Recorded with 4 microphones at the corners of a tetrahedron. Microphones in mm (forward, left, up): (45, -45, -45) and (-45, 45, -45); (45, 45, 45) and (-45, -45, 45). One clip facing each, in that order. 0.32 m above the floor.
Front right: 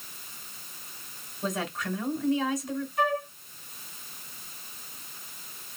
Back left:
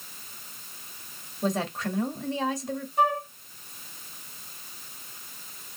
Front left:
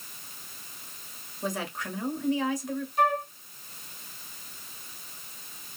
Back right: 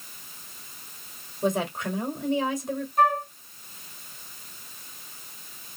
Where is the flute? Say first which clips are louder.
Back left 3 dB, back right 3 dB; straight behind, 2.5 m.